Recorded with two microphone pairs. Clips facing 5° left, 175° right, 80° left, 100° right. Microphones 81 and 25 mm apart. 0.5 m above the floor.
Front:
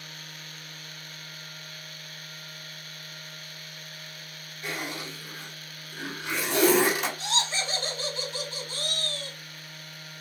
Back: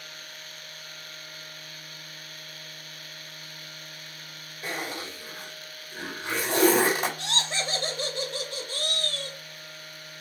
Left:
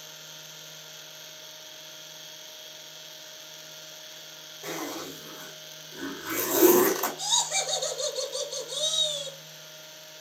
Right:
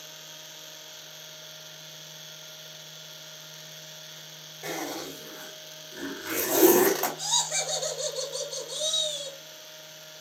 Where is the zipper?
125° right, 1.8 m.